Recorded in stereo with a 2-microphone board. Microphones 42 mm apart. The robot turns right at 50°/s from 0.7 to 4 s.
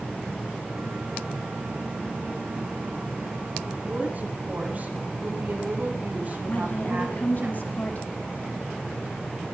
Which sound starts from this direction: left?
A woman speaking, at 6.5 s.